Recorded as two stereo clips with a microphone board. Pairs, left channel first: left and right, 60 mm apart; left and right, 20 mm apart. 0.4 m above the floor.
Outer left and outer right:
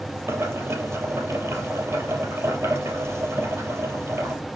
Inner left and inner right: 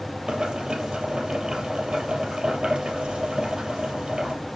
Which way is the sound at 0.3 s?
50° right (ahead or behind).